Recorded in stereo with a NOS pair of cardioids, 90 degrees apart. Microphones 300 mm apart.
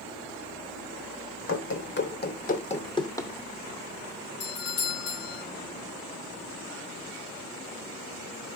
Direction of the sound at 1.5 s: 45° left.